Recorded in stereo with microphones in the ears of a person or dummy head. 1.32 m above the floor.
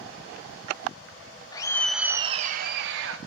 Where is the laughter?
20° left (ahead or behind), 0.8 m; by 3.2 s 80° right, 1.0 m.